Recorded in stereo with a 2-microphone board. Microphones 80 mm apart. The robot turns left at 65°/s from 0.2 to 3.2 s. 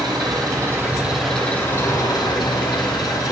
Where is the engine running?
110° right, 6 m; by 3.3 s 55° left, 6 m.